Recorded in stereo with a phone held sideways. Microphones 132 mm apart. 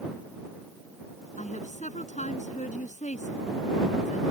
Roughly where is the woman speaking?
Left.